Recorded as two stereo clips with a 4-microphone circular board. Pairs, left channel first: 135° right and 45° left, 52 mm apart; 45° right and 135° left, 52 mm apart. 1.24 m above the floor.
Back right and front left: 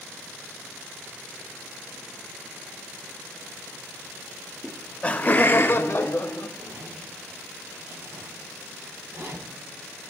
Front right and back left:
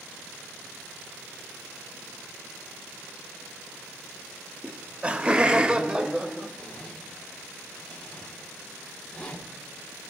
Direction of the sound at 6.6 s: 25° left.